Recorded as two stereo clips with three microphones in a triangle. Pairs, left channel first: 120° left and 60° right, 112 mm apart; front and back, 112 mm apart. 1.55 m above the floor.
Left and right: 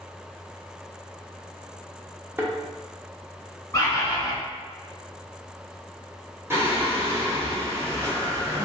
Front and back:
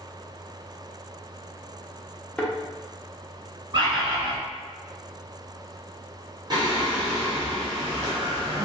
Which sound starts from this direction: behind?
A bird, at 3.7 s.